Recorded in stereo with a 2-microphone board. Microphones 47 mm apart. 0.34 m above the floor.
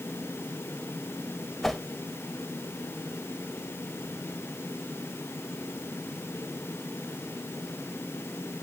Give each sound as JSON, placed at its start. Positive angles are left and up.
{"t": 1.6, "sound": "a whoosh", "side_deg": 5, "distance_m": 0.6}